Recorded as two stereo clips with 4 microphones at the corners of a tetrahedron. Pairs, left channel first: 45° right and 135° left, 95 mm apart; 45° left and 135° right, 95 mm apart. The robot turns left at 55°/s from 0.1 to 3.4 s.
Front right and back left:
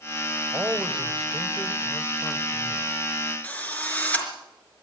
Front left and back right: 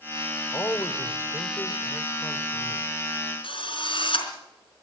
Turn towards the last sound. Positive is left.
turn(degrees=30)